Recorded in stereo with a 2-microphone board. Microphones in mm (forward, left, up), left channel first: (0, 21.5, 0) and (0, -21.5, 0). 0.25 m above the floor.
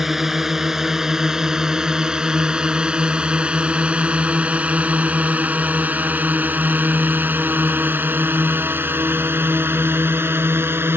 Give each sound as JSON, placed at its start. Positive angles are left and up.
{"t": 0.0, "sound": "a drone", "side_deg": -10}